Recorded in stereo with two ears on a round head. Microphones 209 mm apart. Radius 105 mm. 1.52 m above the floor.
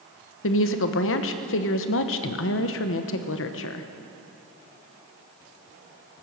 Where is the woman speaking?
60° left (ahead or behind), 1.0 m.